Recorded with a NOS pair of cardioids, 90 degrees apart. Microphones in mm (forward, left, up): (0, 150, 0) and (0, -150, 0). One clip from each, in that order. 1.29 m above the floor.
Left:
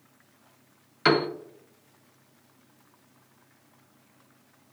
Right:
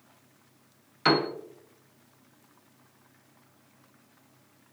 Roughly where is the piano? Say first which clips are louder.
Left 1 dB; ahead.